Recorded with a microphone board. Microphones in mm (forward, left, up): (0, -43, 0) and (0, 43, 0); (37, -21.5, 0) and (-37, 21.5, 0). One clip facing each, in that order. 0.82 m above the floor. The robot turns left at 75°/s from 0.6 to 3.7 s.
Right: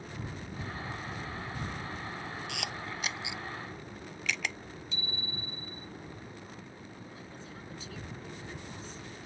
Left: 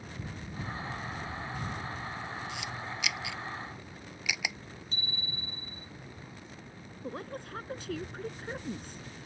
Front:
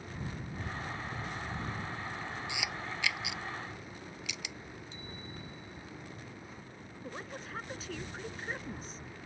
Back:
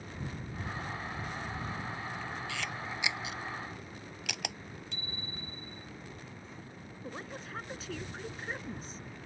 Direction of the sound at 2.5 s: 100° right.